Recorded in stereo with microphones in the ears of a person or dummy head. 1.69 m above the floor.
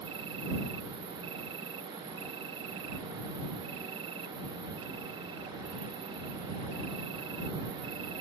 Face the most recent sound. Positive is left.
turn(degrees=-30)  # may be behind; listen again after turning